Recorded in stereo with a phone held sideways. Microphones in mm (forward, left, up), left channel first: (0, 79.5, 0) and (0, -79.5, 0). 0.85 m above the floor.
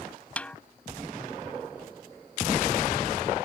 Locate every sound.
0.4 s a snare drum: 10° left (ahead or behind)